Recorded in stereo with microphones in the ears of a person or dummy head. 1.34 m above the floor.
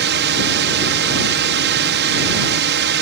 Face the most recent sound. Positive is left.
turn(degrees=-60)  # may be behind; listen again after turning